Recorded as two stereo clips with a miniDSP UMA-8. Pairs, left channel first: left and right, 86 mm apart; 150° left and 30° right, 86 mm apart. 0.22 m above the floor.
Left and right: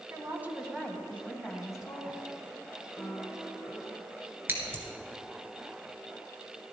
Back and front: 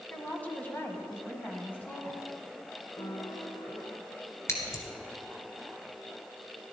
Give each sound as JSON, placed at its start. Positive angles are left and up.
{"t": 0.1, "sound": "a woman speaking", "azimuth_deg": -135, "distance_m": 2.0}
{"t": 3.0, "sound": "a piano", "azimuth_deg": 180, "distance_m": 1.8}
{"t": 4.5, "sound": "scissors", "azimuth_deg": -155, "distance_m": 1.7}